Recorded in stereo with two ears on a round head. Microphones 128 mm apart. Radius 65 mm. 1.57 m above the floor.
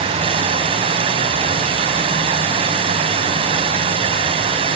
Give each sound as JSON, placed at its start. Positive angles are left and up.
{"t": 0.0, "sound": "running water", "side_deg": -40, "distance_m": 1.9}